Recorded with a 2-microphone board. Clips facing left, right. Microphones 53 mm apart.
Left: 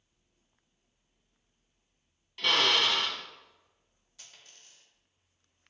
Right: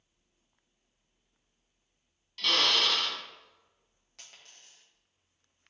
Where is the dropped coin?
70° right (ahead or behind), 3 m.